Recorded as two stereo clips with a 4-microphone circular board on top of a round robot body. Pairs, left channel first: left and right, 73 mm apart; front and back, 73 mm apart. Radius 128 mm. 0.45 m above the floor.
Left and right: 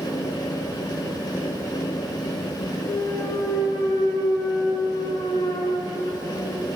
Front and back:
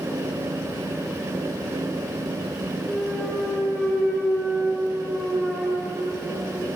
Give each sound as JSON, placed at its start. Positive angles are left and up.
{"t": 2.9, "sound": "a clunk", "azimuth_deg": 100, "distance_m": 3.0}